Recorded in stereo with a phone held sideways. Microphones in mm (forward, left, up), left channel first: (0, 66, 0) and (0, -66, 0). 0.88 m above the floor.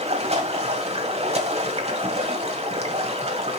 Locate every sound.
0.0 s running water: 50° right (ahead or behind), 1.9 m